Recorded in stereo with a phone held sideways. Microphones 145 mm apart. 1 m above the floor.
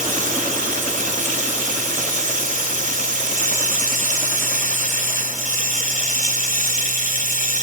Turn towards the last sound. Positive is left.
turn(degrees=-75)  # may be behind; listen again after turning